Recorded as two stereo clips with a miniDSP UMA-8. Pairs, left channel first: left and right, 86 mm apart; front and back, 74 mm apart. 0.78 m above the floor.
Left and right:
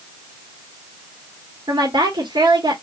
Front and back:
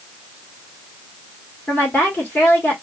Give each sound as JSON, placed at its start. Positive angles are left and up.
{"t": 1.7, "sound": "a woman speaking", "azimuth_deg": -65, "distance_m": 1.6}